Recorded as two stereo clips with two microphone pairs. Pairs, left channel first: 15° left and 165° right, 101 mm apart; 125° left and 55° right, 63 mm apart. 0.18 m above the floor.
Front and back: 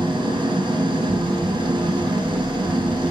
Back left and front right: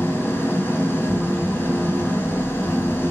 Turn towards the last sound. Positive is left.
turn(degrees=170)